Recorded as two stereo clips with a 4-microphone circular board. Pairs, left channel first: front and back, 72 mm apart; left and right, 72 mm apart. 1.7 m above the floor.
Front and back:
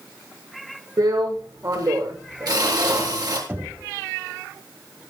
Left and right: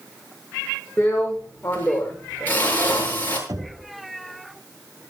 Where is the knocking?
115° right, 4 m.